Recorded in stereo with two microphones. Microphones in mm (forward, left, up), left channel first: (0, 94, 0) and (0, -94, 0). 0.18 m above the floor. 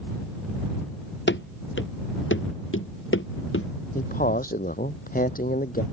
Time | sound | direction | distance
1.3 | running footsteps | 65° left (ahead or behind) | ?
4.0 | a man speaking | 45° left (ahead or behind) | ?